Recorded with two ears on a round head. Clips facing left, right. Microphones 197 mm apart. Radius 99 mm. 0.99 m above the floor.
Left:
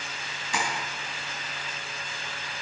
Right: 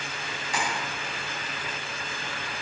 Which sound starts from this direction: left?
Tapping, at 0.5 s.